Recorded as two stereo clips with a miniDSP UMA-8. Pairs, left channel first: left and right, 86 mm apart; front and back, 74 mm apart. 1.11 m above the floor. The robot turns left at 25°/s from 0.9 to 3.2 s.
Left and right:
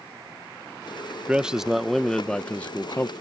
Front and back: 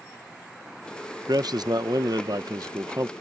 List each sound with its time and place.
1.3 s a man speaking: 170° right; by 3.1 s 145° left